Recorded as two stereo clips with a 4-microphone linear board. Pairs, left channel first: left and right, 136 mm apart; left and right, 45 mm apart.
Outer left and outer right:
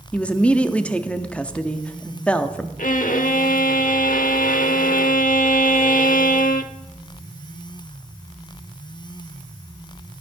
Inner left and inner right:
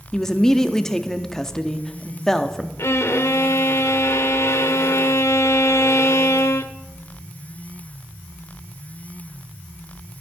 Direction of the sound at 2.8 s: 80° left.